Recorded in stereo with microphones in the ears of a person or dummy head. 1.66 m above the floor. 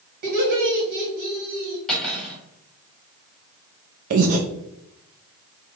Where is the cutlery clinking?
Centre (ahead or behind), 1.6 m.